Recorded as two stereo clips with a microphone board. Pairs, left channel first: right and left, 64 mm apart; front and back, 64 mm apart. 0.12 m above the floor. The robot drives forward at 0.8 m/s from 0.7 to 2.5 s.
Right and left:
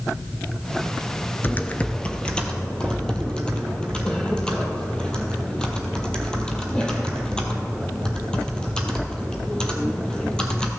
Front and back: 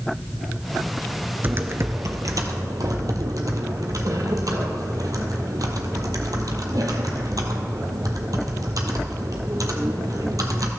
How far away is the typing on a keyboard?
About 0.5 m.